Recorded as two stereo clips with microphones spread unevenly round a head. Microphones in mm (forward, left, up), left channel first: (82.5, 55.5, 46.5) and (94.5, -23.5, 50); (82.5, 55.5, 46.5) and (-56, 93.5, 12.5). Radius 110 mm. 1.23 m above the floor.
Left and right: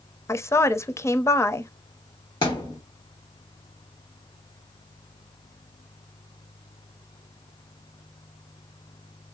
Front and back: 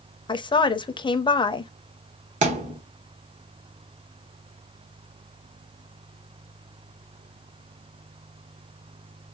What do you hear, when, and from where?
0.3 s a woman speaking: 45° left, 0.9 m
2.4 s a thud: 140° left, 1.1 m